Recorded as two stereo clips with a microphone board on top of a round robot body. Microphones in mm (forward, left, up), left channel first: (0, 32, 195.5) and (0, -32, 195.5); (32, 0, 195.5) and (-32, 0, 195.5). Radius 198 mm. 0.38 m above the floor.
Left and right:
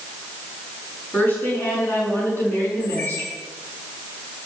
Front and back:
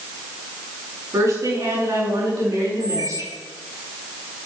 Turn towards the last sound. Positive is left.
turn(degrees=165)